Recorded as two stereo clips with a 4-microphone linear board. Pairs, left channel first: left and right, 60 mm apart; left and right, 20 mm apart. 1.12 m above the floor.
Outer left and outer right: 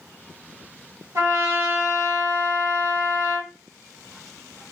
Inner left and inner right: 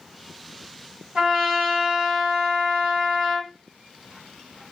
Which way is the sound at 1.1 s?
60° right (ahead or behind).